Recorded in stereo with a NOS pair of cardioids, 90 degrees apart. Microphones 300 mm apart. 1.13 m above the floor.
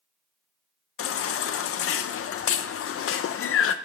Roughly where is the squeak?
No squeak in this recording.